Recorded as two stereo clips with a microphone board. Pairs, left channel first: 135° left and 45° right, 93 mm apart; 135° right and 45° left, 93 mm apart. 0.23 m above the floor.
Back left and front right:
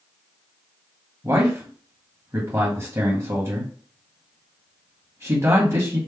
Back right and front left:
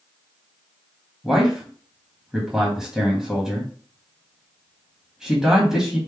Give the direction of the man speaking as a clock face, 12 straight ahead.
1 o'clock.